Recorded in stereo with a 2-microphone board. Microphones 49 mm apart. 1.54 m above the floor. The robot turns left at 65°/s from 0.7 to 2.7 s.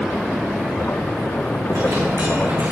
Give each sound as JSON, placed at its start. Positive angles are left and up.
{"t": 1.7, "sound": "a dropped coin", "azimuth_deg": -65, "distance_m": 5.5}